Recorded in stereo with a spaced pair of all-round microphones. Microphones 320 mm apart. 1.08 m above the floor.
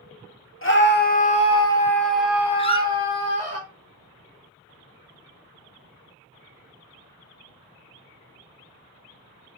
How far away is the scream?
About 2 m.